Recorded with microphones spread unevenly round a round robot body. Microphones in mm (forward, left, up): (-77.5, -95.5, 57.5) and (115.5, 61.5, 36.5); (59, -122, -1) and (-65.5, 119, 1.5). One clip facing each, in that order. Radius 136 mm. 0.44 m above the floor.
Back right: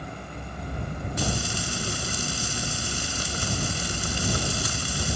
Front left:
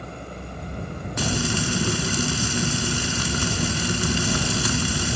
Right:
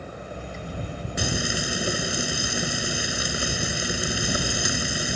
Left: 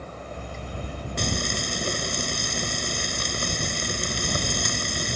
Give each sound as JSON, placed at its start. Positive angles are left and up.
{"t": 1.2, "sound": "frying", "azimuth_deg": 20}